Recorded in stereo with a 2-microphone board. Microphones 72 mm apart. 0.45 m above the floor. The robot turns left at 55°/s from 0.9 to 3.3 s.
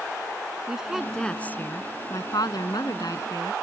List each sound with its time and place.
0.7 s a woman speaking: 170° right; by 3.5 s 55° left